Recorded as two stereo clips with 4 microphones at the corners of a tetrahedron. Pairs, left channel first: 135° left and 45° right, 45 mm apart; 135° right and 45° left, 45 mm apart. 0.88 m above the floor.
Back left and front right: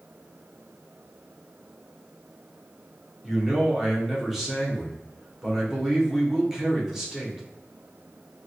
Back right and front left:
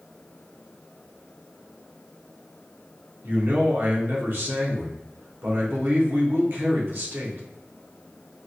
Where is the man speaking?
35° left, 1.1 m.